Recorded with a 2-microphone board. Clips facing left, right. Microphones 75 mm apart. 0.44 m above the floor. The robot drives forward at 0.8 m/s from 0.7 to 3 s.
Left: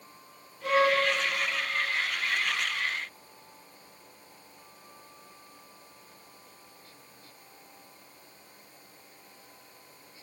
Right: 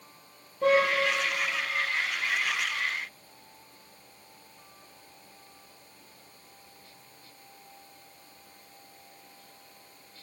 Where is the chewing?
I don't hear chewing.